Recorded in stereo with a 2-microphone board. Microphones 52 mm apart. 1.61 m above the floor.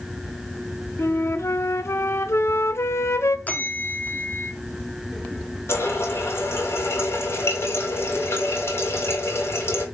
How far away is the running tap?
About 2.5 m.